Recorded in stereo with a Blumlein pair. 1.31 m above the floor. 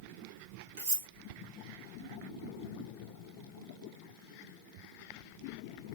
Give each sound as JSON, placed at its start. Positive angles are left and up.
{"t": 0.8, "sound": "cutlery clinking", "azimuth_deg": -50, "distance_m": 1.5}